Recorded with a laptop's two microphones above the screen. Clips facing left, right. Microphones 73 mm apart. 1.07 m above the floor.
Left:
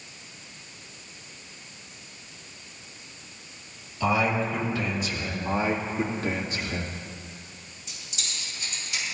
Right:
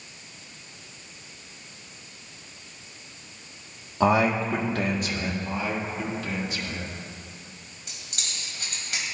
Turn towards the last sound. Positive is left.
turn(degrees=-65)  # may be behind; listen again after turning